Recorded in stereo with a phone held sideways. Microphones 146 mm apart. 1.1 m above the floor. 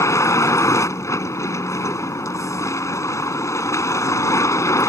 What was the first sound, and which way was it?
A vehicle, 20° left (ahead or behind).